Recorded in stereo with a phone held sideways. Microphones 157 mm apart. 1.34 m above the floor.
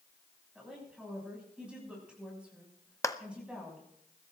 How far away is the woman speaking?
About 6 m.